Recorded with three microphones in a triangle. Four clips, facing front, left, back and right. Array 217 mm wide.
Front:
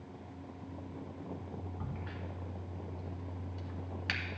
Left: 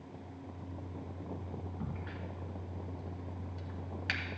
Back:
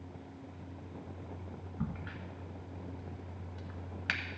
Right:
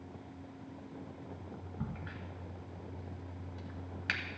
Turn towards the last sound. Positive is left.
turn(degrees=-150)